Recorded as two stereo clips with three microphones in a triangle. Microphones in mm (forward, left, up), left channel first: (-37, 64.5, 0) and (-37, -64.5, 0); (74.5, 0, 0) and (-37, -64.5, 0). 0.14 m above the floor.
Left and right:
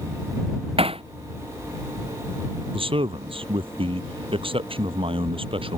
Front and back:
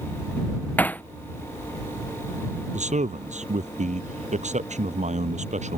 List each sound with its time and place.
0.8 s hammering: 45° right
2.7 s a man speaking: 135° right